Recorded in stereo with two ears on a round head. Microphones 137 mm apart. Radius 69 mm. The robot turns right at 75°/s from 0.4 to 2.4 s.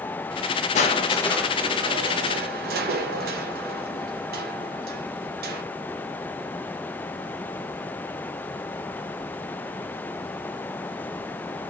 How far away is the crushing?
About 0.7 m.